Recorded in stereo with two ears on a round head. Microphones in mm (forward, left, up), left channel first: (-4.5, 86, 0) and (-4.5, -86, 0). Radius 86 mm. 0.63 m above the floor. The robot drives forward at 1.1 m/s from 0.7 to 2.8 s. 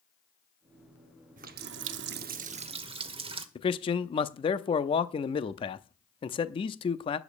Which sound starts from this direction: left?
A man speaking, at 3.5 s.